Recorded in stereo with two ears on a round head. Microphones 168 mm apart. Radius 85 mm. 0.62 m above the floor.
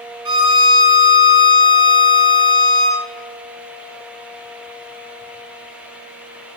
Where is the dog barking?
I don't hear a dog barking.